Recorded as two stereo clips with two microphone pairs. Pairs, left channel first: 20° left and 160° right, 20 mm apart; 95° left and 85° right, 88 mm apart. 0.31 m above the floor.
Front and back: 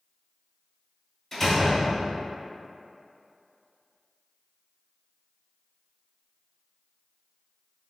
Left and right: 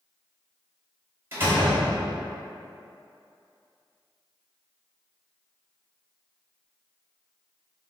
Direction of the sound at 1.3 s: 45° right.